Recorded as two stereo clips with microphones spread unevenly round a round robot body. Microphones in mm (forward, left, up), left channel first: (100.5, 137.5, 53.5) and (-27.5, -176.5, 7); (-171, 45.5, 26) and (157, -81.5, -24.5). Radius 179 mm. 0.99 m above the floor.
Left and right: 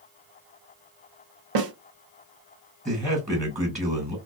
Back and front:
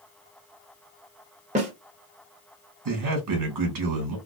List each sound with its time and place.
1.6 s a snare drum: 90° right, 0.9 m
2.9 s a man speaking: 50° right, 1.4 m